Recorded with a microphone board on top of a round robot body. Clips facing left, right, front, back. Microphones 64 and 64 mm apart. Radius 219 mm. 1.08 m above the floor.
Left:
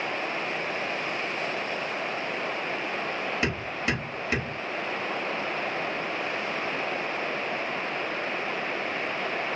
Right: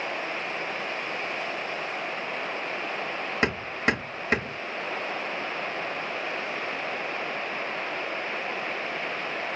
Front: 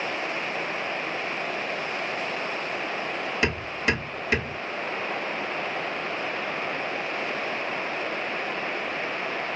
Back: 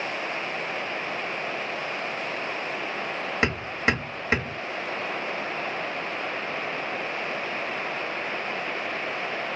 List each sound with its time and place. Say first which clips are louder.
3.4 s hammering: right 7 dB, back 2 dB; 125° right, 1.7 m